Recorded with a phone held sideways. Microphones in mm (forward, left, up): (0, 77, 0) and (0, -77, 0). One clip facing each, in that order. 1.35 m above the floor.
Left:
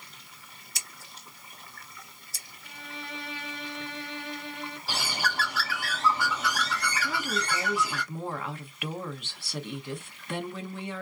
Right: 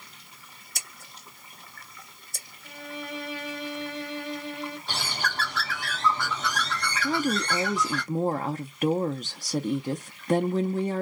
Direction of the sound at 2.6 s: 25° left (ahead or behind).